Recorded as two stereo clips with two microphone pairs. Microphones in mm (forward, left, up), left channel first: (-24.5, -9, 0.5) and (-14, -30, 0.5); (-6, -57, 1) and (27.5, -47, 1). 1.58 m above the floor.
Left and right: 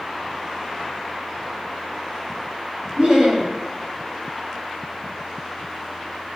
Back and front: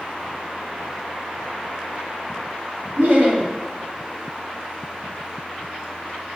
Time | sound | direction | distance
3.0 | laughter | 15° right | 3.5 m